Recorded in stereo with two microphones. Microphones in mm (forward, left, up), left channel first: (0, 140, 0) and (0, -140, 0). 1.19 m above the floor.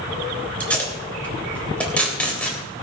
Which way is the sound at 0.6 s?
5° left (ahead or behind).